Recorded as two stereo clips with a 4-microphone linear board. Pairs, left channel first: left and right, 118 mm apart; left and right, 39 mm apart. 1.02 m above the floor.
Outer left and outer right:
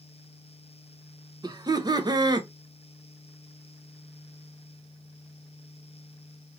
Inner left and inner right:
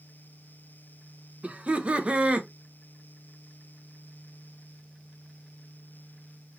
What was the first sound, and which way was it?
Laughter, 35° right (ahead or behind).